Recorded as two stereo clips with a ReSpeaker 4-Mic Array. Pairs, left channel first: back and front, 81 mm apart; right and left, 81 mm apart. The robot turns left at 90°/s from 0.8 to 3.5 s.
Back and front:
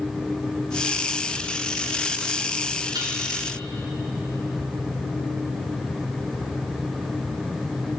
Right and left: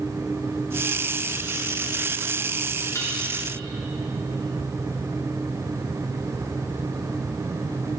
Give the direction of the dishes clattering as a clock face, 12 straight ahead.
1 o'clock.